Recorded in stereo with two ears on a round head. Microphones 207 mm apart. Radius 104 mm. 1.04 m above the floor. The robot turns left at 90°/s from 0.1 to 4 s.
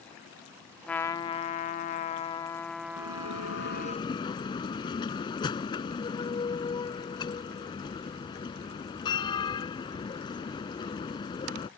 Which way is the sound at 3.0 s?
115° left.